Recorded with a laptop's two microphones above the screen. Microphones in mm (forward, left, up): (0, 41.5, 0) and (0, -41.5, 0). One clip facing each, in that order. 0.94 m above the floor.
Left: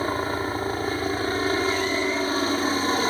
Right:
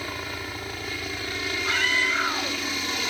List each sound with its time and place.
0.0 s a helicopter: 35° left (ahead or behind)
1.7 s a scream: 75° right (ahead or behind)